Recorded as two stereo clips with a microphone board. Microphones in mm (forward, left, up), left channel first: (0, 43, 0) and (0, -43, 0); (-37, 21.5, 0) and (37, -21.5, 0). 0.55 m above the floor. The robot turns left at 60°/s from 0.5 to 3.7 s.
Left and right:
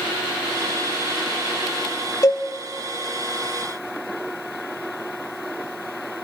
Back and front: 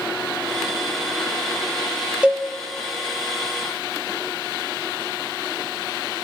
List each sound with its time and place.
2.2 s a cowbell: 45° left, 0.6 m; by 2.5 s 35° left, 0.6 m